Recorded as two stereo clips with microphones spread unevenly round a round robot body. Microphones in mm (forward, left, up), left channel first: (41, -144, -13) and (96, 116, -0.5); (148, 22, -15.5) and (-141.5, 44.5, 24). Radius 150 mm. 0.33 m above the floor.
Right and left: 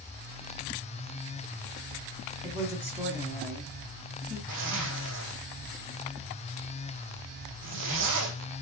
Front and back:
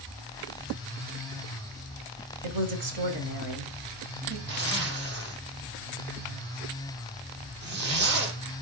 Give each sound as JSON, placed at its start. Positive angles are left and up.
{"t": 2.4, "sound": "a woman speaking", "azimuth_deg": 155, "distance_m": 2.0}
{"t": 4.5, "sound": "a zipper", "azimuth_deg": 135, "distance_m": 6.0}